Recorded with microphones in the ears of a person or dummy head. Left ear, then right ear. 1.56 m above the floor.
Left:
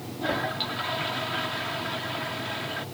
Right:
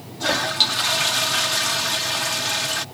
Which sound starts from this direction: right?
A toilet flushing, at 0.2 s.